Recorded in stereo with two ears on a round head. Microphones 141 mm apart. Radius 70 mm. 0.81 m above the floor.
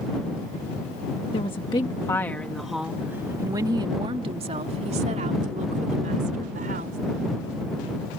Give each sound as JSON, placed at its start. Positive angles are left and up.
{"t": 1.3, "sound": "a woman speaking", "side_deg": 40}